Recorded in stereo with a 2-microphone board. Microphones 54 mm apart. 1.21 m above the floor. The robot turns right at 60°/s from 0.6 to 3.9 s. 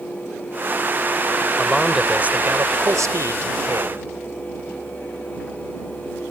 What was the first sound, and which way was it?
A man speaking, 170° left.